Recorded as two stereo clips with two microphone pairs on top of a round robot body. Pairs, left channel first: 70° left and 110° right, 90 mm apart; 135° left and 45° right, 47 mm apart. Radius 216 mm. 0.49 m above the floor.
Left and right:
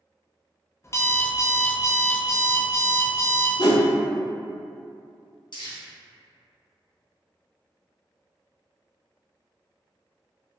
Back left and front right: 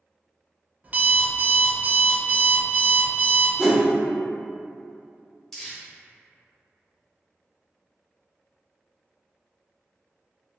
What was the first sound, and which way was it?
An alarm clock, 15° left.